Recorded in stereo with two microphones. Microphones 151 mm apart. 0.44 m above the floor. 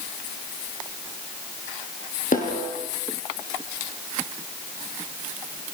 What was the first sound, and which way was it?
A snare drum, 65° left (ahead or behind).